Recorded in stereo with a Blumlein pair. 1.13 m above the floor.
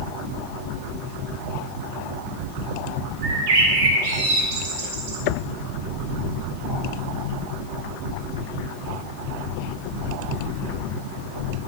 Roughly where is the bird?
Ahead right.